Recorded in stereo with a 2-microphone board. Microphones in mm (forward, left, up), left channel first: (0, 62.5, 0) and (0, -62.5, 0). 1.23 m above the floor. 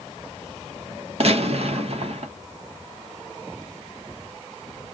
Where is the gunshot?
55° right (ahead or behind), 1.0 m.